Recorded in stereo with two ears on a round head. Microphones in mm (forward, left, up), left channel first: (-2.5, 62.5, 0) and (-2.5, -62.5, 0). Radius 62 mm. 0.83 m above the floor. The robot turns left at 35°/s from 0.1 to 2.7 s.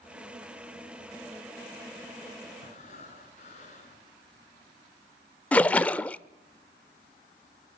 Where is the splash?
10° left (ahead or behind), 0.7 m.